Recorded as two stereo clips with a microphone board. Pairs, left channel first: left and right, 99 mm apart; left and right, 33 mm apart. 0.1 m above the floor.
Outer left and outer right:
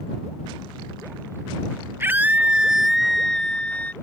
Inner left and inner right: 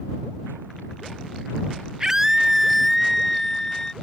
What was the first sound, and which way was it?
A scream, 20° right (ahead or behind).